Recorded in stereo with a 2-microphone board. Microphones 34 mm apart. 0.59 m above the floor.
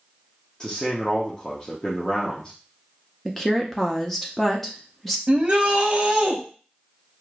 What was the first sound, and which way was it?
A man speaking, 25° left (ahead or behind).